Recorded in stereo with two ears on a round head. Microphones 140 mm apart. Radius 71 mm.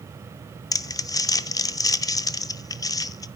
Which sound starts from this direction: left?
Crumpling, at 0.7 s.